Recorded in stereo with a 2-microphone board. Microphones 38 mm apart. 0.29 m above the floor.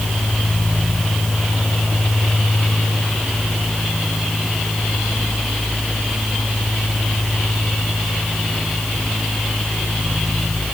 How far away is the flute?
I don't hear a flute.